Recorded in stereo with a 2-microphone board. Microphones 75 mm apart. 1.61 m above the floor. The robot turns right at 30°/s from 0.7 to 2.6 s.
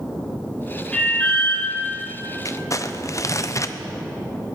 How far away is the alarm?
About 6 m.